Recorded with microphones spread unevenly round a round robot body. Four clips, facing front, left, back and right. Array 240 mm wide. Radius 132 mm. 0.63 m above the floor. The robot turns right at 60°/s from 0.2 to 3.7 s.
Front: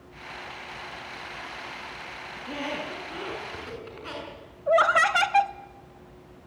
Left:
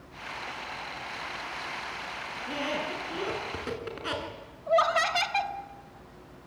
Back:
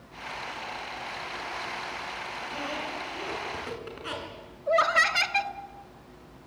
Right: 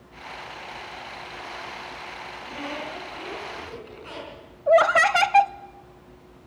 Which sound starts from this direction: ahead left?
A squeak, at 2.4 s.